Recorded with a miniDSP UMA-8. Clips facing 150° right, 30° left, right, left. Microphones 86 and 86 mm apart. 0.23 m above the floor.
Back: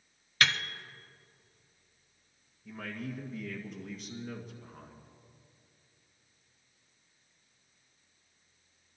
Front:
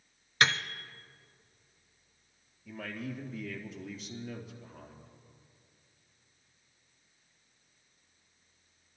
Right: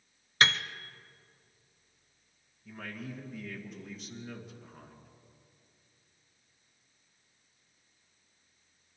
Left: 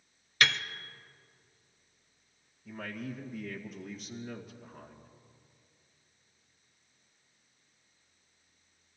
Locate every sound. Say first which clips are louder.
0.4 s a piano: front 2 dB, right 2 dB; 35° right, 0.7 m
2.6 s a man speaking: even, left 2 dB; straight behind, 2 m